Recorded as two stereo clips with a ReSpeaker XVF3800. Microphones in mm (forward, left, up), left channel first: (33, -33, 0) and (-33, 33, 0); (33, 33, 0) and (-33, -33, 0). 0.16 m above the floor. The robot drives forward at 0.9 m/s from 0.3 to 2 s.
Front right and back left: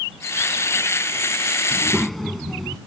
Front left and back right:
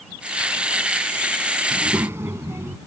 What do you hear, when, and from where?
1.7 s a child speaking: 105° right; by 2.8 s 130° right